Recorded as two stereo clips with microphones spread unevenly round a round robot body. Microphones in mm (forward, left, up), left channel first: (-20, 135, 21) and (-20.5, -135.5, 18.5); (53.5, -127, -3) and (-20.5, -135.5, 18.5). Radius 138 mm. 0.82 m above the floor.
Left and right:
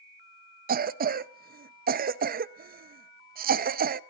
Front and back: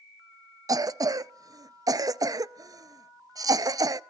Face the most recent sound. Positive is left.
turn(degrees=-130)